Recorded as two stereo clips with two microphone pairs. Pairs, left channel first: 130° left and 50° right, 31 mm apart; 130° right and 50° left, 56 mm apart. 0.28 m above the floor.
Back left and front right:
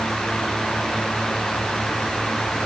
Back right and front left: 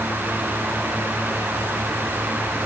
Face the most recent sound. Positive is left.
No sound to turn to.